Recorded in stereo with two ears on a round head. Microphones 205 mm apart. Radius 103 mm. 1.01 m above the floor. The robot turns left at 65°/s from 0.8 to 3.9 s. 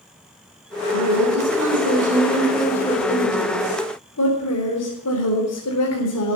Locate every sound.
0.9 s a woman speaking: 70° right, 4.5 m; by 6.4 s 95° left, 4.5 m